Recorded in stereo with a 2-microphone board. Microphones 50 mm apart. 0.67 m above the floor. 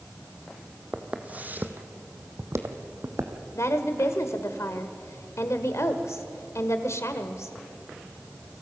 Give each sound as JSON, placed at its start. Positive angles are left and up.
{"t": 0.9, "sound": "footsteps", "side_deg": -20, "distance_m": 1.9}
{"t": 3.5, "sound": "a woman speaking", "side_deg": 70, "distance_m": 2.0}